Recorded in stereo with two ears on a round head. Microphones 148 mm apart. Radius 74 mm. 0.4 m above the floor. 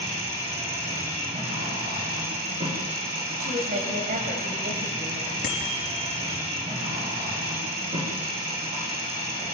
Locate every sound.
0.0 s an engine running: 40° right (ahead or behind), 6 m
3.4 s a woman speaking: 50° right (ahead or behind), 2.5 m
5.4 s a bicycle bell: 60° left (ahead or behind), 4.5 m